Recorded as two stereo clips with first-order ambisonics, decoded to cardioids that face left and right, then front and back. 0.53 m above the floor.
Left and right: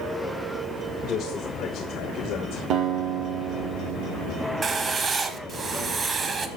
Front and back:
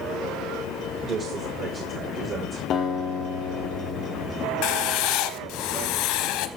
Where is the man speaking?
130° left, 1.6 m; by 2.6 s 125° left, 2.5 m.